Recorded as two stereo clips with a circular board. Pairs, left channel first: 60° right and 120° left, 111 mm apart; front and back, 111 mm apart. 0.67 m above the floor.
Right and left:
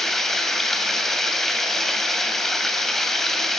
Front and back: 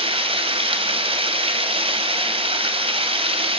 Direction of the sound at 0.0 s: 145° right.